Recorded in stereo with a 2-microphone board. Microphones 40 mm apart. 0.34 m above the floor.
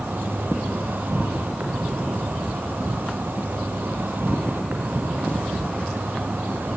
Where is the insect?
55° right (ahead or behind), 4 m.